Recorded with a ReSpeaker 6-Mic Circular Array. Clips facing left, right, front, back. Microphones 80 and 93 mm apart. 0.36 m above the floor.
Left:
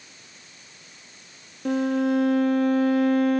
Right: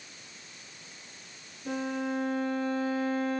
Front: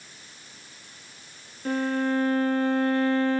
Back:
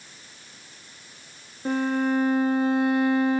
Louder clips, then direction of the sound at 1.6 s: Left 10 dB, back 2 dB; 105° left.